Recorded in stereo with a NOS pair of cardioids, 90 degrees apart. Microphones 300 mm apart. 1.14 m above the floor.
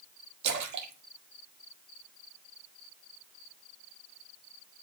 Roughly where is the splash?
Ahead right.